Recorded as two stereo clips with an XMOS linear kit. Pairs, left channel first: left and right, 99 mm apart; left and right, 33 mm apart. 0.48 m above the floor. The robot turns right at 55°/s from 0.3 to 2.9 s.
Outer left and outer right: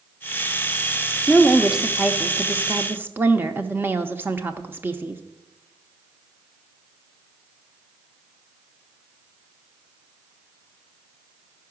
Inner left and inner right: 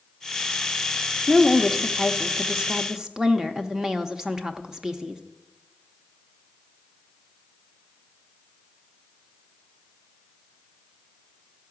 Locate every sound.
1.3 s a woman speaking: 5° left (ahead or behind), 0.7 m; by 5.2 s 20° right (ahead or behind), 0.7 m